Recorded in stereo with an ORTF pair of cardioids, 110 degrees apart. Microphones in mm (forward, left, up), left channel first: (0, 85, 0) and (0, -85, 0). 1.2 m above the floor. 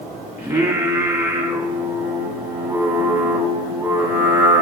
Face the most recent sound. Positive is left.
turn(degrees=-15)